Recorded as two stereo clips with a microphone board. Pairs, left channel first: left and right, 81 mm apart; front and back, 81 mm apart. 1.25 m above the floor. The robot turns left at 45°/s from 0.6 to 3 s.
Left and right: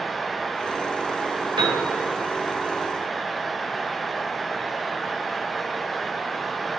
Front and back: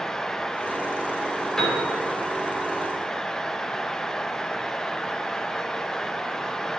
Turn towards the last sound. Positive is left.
turn(degrees=-145)